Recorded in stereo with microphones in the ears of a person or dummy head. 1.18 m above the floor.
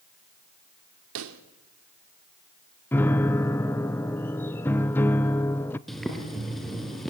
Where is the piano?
10° left (ahead or behind), 0.6 m.